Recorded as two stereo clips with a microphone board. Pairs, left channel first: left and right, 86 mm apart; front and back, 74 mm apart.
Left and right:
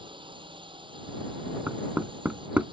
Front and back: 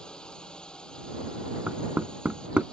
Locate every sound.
0.0 s a drone: 80° right
1.7 s knocking: 130° right